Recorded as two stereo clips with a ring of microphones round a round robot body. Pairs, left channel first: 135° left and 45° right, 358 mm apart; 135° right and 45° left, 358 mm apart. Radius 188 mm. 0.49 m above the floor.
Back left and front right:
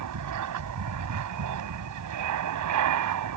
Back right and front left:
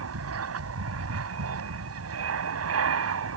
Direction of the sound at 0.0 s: 5° right.